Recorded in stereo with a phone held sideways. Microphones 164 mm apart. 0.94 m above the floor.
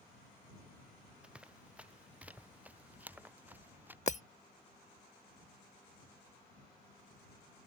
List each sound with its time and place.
1.2 s running footsteps: 5° right (ahead or behind); by 4.0 s 10° right (ahead or behind)
4.1 s breaking glass: 45° left (ahead or behind)